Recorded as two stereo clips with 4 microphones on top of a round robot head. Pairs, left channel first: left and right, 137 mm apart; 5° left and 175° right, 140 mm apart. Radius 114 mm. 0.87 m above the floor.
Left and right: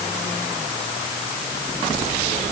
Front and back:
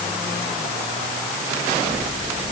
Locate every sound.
Only background noise.